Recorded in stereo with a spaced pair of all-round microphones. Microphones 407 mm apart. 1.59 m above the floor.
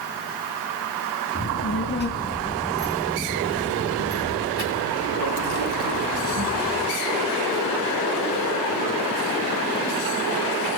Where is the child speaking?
35° left (ahead or behind), 2.5 m; by 6.9 s 75° right (ahead or behind), 4 m.